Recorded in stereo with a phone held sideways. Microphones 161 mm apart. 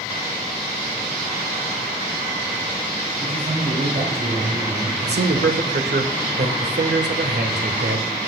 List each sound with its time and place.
3.2 s a man speaking: 55° right (ahead or behind), 2.5 m
5.0 s a man speaking: 80° right, 1.2 m